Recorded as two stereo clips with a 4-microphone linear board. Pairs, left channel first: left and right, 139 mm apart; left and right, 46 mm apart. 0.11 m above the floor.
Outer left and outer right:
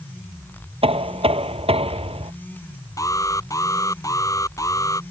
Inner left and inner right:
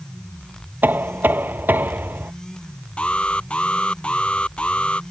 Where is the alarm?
25° left (ahead or behind).